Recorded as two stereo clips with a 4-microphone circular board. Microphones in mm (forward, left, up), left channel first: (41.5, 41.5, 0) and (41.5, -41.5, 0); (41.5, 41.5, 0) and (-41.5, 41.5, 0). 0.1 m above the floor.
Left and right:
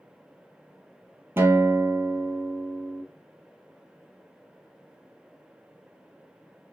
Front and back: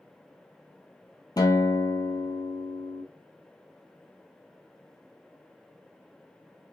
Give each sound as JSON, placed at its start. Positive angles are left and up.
{"t": 1.4, "sound": "a guitar", "azimuth_deg": -30, "distance_m": 0.5}